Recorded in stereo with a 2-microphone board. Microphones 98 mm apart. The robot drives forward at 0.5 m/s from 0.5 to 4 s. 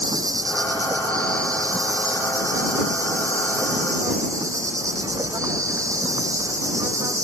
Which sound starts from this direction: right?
An insect, at 0.0 s.